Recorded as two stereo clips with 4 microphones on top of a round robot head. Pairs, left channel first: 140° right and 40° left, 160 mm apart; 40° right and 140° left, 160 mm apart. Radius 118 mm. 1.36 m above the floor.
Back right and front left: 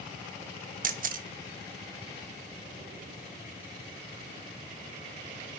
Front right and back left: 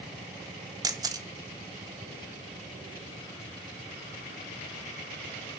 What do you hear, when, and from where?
0.8 s a camera shutter: 75° left, 1.5 m